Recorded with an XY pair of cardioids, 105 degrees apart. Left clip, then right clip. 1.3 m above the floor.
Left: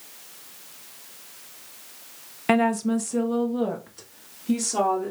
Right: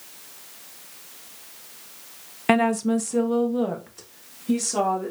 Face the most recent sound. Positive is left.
turn(degrees=0)